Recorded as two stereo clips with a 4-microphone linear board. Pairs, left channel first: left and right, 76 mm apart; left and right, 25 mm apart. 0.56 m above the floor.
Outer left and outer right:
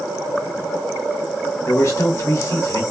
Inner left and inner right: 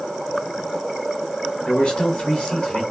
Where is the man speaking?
45° left (ahead or behind), 1.3 m.